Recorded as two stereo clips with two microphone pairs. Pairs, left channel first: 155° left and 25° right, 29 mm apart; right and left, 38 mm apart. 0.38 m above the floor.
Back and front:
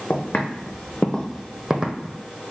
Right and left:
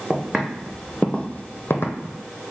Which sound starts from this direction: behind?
Footsteps, at 0.1 s.